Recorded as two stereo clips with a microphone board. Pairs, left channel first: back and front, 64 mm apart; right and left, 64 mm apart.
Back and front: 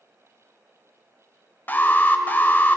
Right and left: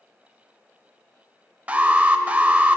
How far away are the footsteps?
No footsteps in this recording.